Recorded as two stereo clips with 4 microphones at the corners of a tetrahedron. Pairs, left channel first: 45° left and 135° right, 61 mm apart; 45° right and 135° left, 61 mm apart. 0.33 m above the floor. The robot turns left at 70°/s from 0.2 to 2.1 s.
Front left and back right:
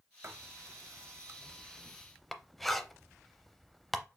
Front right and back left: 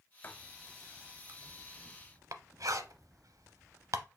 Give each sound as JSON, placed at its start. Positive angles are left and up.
{"t": 0.2, "sound": "writing", "azimuth_deg": -100, "distance_m": 0.5}